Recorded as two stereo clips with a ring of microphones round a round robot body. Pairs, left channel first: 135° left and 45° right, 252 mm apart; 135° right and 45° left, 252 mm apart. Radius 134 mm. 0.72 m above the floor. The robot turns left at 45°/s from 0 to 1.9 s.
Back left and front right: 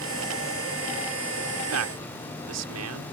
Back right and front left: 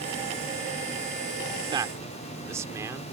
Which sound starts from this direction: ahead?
A man speaking, at 1.6 s.